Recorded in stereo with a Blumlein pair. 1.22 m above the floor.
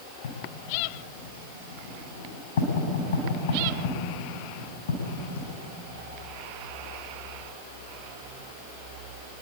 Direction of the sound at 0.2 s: 60° left.